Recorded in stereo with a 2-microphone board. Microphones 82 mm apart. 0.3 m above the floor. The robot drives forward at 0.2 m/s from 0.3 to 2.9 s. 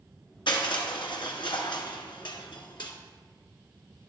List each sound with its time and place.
0.5 s crushing: 75° left (ahead or behind), 1.5 m